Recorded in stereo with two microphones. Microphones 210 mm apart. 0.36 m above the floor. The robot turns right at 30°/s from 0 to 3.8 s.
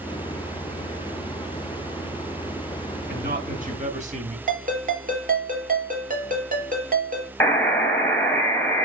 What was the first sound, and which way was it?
A man speaking, 55° right (ahead or behind).